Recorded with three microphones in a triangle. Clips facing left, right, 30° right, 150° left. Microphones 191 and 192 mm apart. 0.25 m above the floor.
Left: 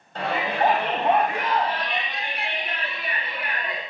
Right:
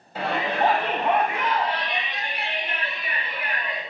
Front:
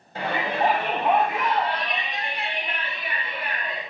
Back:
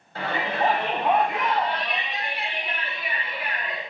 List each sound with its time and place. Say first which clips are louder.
0.1 s a shout: even, front 1 dB; 20° right, 1.0 m; by 3.8 s 70° left, 3.5 m